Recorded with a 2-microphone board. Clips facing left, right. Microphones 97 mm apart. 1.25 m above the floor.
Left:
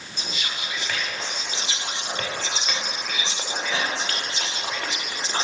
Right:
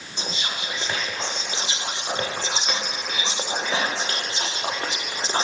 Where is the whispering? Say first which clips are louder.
Right 2 dB; 30° right (ahead or behind), 0.6 m.